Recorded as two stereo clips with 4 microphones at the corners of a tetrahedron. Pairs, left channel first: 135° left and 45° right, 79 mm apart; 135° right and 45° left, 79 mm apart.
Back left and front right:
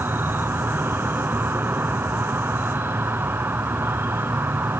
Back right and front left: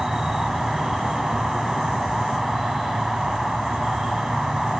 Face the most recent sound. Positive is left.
turn(degrees=-35)